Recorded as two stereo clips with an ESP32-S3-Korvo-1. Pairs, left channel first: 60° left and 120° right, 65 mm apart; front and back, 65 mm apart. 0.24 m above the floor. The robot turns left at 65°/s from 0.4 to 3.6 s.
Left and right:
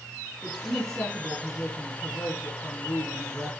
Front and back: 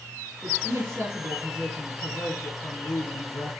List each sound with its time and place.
0.4 s a woman speaking: 170° left, 2.5 m; by 3.5 s 30° right, 2.5 m